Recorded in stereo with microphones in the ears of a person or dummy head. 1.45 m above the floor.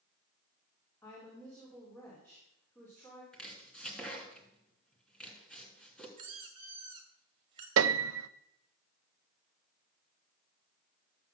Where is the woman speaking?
10° left (ahead or behind), 4 m.